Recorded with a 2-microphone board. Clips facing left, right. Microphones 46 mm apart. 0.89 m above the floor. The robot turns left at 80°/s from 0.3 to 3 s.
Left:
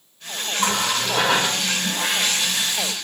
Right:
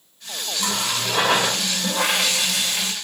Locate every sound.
0.6 s a running tap: 40° left, 0.6 m; by 2.9 s 150° right, 0.6 m